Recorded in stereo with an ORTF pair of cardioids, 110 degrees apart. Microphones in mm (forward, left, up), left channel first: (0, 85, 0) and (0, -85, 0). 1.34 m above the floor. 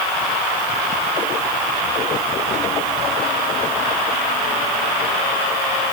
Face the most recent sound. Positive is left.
No sound to turn to.